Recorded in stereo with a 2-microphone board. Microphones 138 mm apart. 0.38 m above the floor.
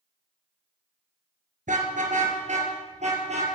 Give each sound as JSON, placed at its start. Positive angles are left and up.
{"t": 1.7, "sound": "a car horn", "side_deg": -70, "distance_m": 3.0}